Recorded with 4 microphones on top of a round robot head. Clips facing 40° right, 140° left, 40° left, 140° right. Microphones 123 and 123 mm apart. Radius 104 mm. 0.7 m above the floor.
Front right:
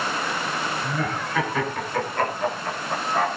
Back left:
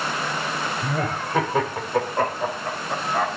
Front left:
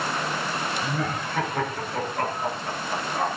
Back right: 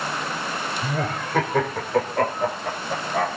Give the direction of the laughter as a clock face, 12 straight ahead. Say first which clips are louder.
Back left 1 dB, back right 1 dB; 6 o'clock.